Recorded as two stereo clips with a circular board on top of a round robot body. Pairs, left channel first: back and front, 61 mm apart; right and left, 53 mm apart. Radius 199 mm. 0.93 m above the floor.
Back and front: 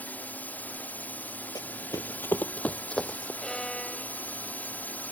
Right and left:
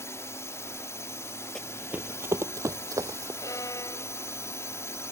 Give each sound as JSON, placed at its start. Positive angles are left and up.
{"t": 0.0, "sound": "a drone", "azimuth_deg": -115}
{"t": 1.6, "sound": "running footsteps", "azimuth_deg": -170}
{"t": 3.4, "sound": "a violin", "azimuth_deg": -100}